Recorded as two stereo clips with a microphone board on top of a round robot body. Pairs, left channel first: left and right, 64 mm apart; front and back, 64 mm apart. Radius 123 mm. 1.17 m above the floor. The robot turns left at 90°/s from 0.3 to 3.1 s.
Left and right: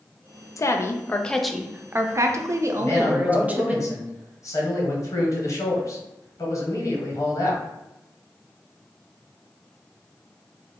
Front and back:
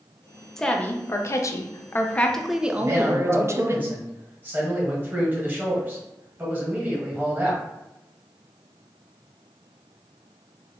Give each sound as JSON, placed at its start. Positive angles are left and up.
{"t": 0.6, "sound": "a woman speaking", "azimuth_deg": 80, "distance_m": 0.5}
{"t": 2.8, "sound": "a man speaking", "azimuth_deg": 150, "distance_m": 1.1}